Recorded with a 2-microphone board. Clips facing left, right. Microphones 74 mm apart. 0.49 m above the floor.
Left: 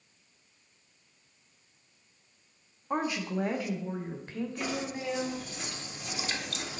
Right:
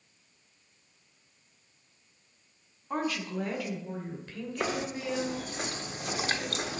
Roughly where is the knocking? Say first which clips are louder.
Right 5 dB; right.